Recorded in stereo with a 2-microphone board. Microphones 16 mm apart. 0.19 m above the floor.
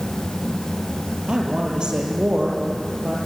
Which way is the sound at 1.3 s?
55° right (ahead or behind).